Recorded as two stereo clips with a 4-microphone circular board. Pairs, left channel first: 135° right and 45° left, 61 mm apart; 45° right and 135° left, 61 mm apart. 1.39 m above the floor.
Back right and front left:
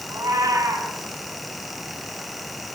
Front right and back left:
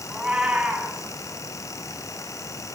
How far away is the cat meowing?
About 6 m.